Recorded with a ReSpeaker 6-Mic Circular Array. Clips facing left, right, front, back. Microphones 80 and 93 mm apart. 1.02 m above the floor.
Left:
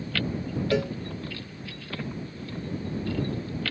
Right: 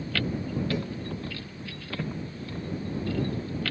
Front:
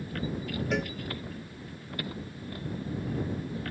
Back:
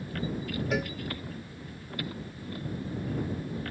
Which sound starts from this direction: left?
A cowbell, at 0.7 s.